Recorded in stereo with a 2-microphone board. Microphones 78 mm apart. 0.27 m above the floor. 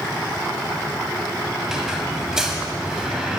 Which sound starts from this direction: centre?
A squeak, at 1.6 s.